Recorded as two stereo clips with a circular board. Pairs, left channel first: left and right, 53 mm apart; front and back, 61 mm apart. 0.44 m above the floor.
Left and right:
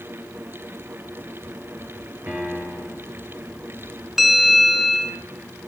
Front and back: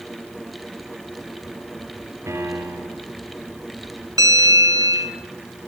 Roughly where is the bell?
Behind.